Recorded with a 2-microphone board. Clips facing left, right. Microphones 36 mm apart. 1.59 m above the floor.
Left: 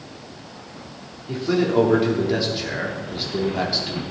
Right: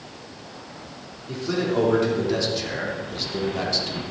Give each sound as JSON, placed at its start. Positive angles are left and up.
{"t": 1.3, "sound": "a man speaking", "side_deg": 10, "distance_m": 3.5}